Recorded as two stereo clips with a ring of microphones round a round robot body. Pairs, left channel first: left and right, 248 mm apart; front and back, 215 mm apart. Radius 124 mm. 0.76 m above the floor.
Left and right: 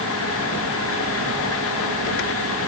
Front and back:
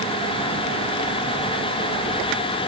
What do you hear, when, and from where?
Only background noise.